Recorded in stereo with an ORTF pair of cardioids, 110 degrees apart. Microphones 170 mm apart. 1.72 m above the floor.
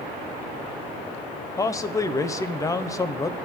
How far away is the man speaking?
About 1.0 m.